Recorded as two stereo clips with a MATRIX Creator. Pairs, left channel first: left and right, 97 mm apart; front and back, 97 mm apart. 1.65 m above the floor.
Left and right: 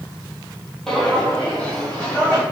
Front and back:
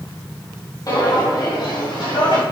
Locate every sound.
0.9 s footsteps: 10° left, 2 m; by 2.4 s 15° left, 3.5 m